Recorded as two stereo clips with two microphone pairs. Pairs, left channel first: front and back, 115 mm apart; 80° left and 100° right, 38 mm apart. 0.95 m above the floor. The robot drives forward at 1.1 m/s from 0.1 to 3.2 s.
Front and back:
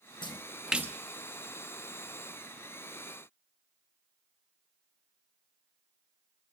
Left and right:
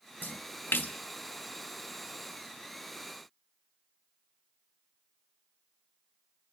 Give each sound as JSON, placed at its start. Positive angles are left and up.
{"t": 0.2, "sound": "a splash", "azimuth_deg": 50, "distance_m": 0.7}